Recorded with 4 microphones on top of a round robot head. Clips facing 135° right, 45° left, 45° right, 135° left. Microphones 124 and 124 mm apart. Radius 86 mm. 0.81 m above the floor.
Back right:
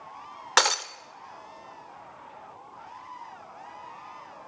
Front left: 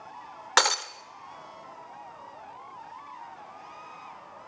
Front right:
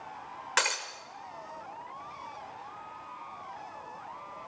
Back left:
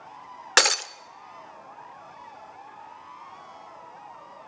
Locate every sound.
0.6 s breaking glass: 135° left, 0.7 m